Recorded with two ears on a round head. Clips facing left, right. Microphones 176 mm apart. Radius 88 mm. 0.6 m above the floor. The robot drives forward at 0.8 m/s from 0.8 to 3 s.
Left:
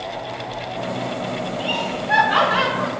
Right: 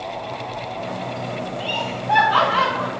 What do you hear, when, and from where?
1.6 s laughter: 20° left (ahead or behind), 3 m; by 2.9 s 30° left (ahead or behind), 2.0 m